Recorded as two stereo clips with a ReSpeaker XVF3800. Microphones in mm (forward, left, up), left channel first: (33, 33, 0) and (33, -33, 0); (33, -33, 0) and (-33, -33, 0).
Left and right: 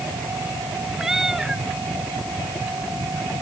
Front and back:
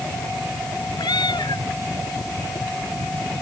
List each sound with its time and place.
1.0 s a cat meowing: 5° right